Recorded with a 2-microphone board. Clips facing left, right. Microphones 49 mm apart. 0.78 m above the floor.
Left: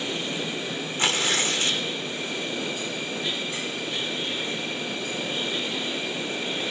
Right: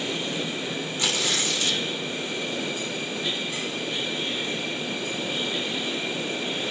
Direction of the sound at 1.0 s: 40° left (ahead or behind).